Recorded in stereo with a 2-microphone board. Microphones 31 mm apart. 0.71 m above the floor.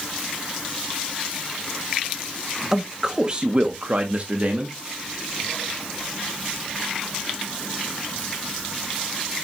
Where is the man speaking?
15° right (ahead or behind), 1.2 m; by 4.8 s 45° right (ahead or behind), 1.5 m.